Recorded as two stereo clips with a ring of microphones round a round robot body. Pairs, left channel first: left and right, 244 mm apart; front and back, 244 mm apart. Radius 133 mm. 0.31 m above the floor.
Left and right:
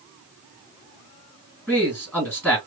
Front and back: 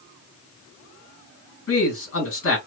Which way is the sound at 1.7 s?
5° left.